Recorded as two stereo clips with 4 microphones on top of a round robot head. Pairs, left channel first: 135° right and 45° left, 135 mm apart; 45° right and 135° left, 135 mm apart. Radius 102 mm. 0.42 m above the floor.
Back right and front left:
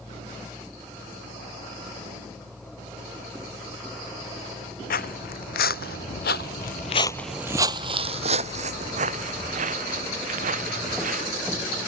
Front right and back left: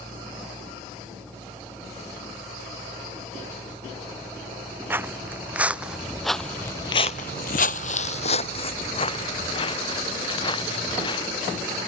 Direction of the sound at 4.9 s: 150° right.